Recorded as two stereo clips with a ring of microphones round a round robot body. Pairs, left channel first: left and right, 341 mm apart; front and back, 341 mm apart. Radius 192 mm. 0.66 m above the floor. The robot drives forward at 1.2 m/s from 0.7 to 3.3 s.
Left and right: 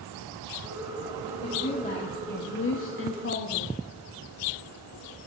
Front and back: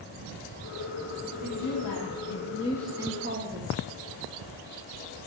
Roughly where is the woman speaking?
Ahead.